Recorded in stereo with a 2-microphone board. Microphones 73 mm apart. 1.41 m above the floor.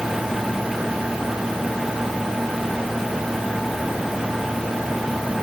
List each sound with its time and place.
Only background noise.